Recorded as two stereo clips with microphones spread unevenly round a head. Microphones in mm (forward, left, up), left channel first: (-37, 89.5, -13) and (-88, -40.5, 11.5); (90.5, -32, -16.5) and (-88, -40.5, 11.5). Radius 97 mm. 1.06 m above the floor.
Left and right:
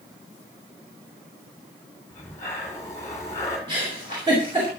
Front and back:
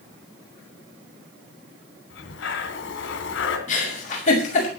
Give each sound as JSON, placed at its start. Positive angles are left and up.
{"t": 2.1, "sound": "breathing", "azimuth_deg": -10, "distance_m": 2.5}
{"t": 3.7, "sound": "a giggle", "azimuth_deg": -45, "distance_m": 6.5}